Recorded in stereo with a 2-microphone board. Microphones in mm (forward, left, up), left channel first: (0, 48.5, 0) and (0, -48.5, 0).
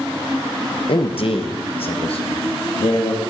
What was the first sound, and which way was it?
A man speaking, 60° left (ahead or behind).